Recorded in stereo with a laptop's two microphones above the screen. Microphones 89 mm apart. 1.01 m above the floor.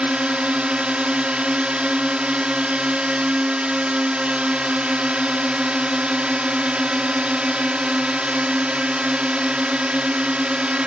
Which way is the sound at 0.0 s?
10° right (ahead or behind).